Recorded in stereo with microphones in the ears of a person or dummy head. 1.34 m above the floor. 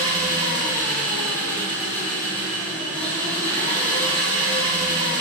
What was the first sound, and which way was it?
An engine running, 5° left (ahead or behind).